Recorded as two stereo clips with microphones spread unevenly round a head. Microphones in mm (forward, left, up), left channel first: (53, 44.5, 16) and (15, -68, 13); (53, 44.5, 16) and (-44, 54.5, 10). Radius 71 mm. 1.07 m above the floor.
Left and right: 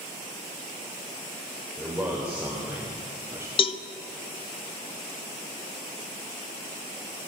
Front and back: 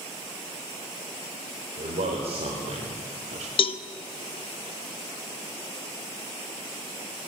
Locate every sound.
1.8 s a man speaking: 170° left, 4 m; by 3.5 s straight behind, 1.6 m
3.6 s a cowbell: 25° left, 0.9 m